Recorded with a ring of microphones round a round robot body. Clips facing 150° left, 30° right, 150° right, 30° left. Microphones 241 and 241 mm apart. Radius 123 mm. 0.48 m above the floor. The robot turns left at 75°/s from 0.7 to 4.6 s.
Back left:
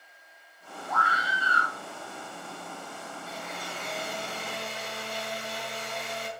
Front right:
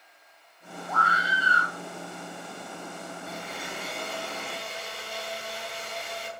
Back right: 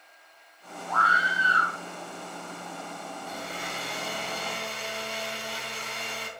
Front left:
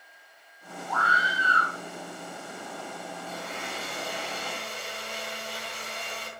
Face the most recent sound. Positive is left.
turn(degrees=-170)